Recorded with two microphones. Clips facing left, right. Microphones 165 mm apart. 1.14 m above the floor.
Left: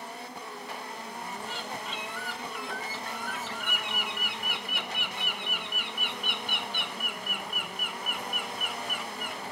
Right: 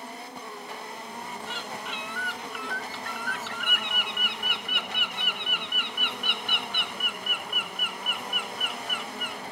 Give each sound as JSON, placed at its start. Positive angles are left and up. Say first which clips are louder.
{"t": 1.5, "sound": "a bird", "louder": "right 1 dB", "side_deg": -65, "distance_m": 2.5}